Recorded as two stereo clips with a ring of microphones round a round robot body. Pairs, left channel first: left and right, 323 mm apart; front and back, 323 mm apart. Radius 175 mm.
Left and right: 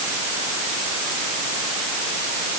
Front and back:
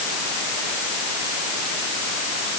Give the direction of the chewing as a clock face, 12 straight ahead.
No chewing in this recording.